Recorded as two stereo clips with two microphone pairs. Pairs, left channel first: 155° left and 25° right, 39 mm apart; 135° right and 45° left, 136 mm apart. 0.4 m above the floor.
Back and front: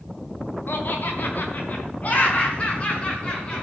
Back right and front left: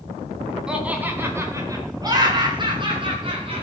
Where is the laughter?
130° left, 3.5 m; by 3.6 s 95° left, 6.5 m.